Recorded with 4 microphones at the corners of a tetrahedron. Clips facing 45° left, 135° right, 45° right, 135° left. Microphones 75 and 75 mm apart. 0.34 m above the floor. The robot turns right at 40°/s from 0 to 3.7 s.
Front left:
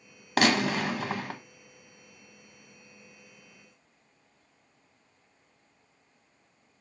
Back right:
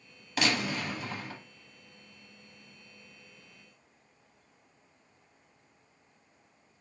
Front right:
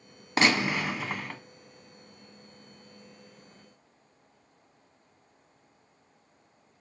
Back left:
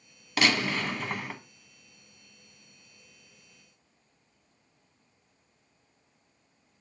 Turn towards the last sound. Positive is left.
turn(degrees=145)